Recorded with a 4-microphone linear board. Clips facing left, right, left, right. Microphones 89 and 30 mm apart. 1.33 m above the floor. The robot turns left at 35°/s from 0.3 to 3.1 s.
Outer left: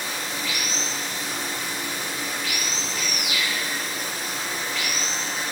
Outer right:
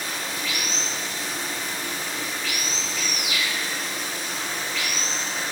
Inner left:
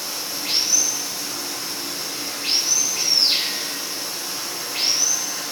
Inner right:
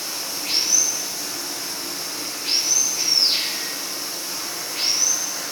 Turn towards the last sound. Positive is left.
turn(degrees=50)